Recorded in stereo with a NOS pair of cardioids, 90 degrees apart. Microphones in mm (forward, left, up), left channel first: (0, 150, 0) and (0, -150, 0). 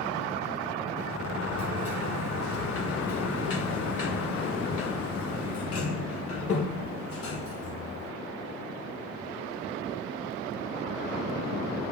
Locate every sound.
1.0 s a sliding door: 50° left, 1.4 m